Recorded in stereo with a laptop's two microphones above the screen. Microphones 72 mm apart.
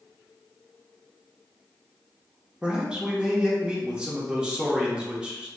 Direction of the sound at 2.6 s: 15° right (ahead or behind).